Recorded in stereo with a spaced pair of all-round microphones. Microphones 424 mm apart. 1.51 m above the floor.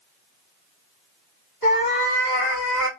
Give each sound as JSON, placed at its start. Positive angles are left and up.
{"t": 1.6, "sound": "a cat meowing", "side_deg": 55, "distance_m": 1.6}